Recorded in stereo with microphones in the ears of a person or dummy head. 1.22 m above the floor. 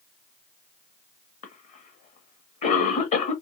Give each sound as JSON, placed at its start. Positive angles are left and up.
{"t": 1.4, "sound": "a cough", "side_deg": 35, "distance_m": 1.0}